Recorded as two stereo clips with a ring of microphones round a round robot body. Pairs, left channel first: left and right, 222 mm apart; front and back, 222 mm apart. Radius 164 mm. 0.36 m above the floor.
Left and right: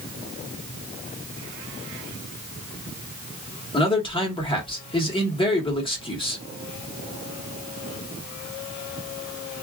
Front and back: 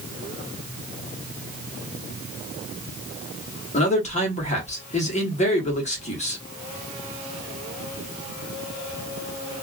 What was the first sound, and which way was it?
A man speaking, 35° left.